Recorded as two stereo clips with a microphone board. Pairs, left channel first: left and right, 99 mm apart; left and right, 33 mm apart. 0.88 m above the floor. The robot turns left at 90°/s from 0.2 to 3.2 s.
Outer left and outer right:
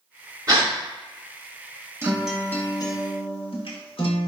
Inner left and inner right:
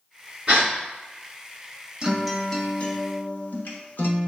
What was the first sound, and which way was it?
A gasp, 40° right (ahead or behind).